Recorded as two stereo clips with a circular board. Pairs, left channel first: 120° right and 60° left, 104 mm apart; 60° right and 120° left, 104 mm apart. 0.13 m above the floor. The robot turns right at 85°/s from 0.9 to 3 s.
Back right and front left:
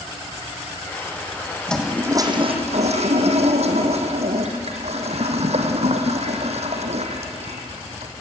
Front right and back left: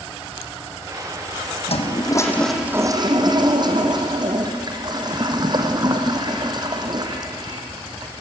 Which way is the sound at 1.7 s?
40° right.